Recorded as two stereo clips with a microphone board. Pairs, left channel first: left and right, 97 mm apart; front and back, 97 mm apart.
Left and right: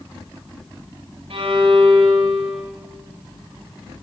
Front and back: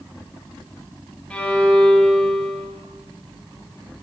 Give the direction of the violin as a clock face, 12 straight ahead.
3 o'clock.